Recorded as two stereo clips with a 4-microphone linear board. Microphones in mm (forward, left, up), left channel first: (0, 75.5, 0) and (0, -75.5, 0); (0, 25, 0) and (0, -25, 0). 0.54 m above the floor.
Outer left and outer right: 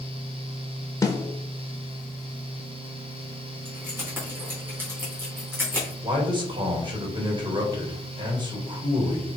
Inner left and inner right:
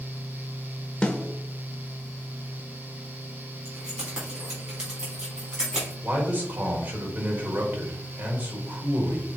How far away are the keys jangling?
About 3.5 m.